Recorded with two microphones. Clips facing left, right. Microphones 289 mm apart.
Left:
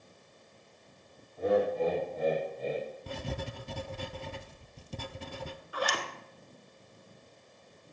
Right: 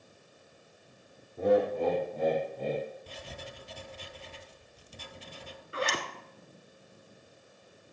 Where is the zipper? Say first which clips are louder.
Right 1 dB; 25° right (ahead or behind), 1.2 m.